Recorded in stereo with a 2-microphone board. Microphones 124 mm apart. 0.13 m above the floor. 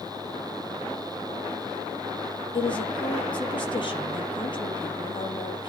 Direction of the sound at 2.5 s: 40° left (ahead or behind).